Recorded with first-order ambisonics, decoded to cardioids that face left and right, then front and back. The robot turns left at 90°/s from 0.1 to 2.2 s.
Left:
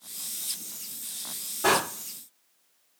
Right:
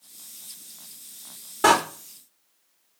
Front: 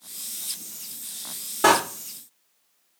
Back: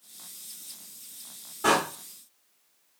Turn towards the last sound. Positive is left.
turn(degrees=-90)